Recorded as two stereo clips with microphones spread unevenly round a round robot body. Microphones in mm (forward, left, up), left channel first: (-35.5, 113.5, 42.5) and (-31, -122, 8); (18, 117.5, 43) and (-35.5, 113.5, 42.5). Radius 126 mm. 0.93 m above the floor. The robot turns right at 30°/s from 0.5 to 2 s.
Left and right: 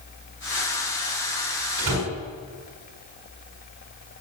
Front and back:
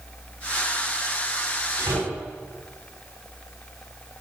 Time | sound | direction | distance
1.8 | a door slam | 130° right | 6.5 m